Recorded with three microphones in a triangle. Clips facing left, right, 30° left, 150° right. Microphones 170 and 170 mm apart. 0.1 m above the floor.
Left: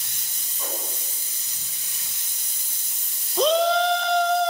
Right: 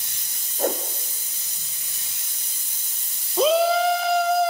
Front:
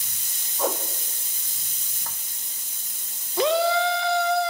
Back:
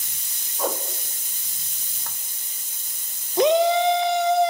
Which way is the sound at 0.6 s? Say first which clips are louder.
Right 11 dB, even; 60° right.